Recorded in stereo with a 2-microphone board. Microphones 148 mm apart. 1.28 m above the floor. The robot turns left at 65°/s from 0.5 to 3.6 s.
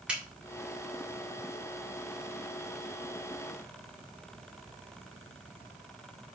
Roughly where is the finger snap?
Centre.